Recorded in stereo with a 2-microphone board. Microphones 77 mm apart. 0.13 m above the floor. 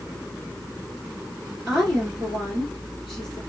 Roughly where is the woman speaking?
Centre.